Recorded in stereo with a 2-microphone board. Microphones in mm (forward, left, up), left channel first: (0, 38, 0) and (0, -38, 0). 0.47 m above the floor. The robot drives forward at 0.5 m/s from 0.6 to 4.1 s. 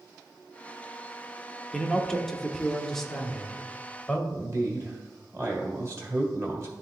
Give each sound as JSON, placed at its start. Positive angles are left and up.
{"t": 1.7, "sound": "a man speaking", "side_deg": 5, "distance_m": 0.7}
{"t": 4.3, "sound": "a man speaking", "side_deg": -40, "distance_m": 1.8}